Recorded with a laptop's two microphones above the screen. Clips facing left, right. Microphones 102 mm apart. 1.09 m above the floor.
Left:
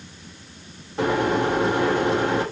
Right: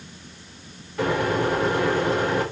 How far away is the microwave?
About 1.9 m.